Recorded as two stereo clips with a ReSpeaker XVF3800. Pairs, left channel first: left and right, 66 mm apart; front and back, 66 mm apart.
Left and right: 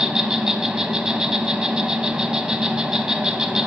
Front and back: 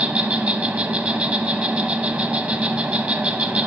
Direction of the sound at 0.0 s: 150° right.